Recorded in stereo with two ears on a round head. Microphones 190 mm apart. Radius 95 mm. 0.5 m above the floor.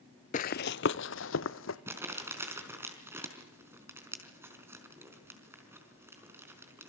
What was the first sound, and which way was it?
Running footsteps, 40° left (ahead or behind).